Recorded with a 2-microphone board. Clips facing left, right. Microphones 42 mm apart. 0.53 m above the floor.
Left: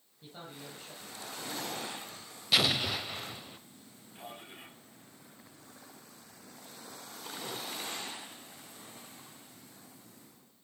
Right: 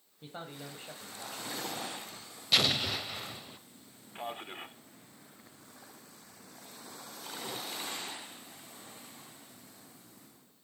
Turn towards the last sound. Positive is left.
turn(degrees=-45)  # may be behind; listen again after turning